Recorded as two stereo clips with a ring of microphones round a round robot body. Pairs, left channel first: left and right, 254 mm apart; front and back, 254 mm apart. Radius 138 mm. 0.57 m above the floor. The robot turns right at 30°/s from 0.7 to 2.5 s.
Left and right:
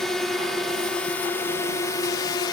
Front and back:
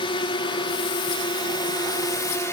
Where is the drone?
5° left; by 2.5 s 60° left.